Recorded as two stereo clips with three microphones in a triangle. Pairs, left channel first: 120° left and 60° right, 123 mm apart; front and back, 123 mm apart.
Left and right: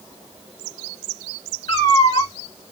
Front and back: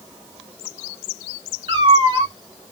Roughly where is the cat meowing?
Behind left.